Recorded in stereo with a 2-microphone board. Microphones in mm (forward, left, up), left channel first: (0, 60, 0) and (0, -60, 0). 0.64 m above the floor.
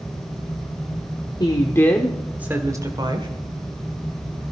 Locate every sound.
1.4 s a woman speaking: 40° left (ahead or behind), 1.6 m; by 3.3 s 45° right (ahead or behind), 2 m